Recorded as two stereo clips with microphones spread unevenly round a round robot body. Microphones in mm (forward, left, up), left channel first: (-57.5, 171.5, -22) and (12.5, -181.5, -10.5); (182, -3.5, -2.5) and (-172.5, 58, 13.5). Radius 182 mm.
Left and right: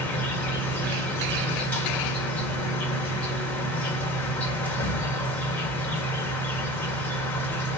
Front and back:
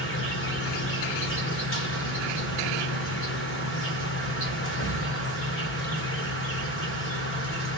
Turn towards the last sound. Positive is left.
turn(degrees=20)